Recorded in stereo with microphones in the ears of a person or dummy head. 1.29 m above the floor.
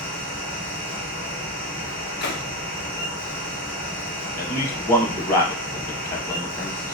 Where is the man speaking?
15° left (ahead or behind), 0.5 m.